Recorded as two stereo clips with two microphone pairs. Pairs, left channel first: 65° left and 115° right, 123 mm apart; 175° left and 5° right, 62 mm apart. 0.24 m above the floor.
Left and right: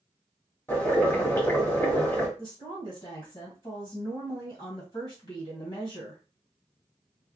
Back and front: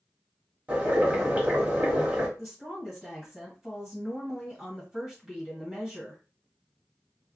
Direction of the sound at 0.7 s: 20° left.